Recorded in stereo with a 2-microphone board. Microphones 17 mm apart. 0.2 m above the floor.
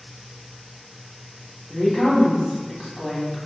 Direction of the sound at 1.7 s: 30° left (ahead or behind).